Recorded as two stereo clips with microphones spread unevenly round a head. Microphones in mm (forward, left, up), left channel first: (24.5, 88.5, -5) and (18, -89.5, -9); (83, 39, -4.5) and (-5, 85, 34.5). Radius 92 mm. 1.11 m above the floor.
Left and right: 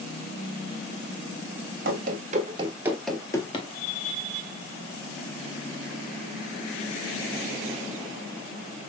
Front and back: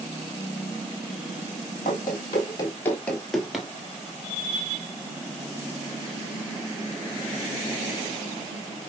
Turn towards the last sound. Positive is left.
turn(degrees=115)